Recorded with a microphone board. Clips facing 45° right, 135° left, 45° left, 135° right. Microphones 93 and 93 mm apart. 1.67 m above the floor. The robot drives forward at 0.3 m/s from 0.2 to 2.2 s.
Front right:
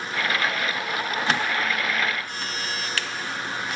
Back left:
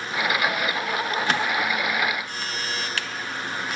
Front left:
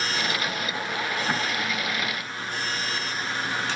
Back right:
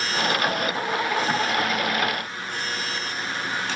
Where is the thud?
I don't hear a thud.